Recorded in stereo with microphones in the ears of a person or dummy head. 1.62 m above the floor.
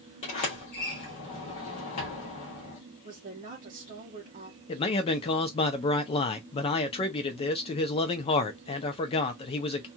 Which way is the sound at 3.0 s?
40° right (ahead or behind).